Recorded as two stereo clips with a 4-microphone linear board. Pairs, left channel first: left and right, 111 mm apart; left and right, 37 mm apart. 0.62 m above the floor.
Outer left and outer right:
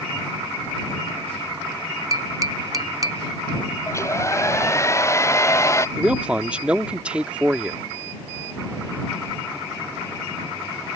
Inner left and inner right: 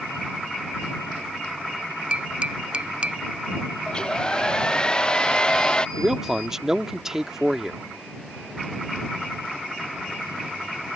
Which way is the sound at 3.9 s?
25° left (ahead or behind).